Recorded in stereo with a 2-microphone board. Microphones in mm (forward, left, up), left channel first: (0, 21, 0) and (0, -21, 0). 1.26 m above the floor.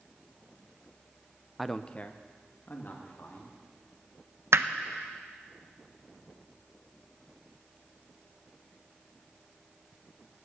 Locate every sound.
1.6 s a man speaking: 5° right (ahead or behind), 0.5 m; by 3.5 s 50° left (ahead or behind), 3 m
4.5 s hammering: 70° right (ahead or behind), 0.7 m